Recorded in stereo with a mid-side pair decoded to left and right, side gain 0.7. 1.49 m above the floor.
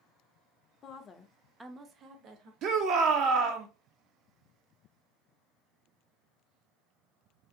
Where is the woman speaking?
40° left, 0.6 m; by 2.5 s 60° right, 0.9 m.